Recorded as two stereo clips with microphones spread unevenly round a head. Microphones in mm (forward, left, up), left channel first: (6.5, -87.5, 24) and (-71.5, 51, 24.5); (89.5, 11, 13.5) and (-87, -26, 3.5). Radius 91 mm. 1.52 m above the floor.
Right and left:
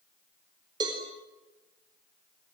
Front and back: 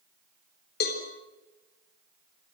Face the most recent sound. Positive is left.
turn(degrees=50)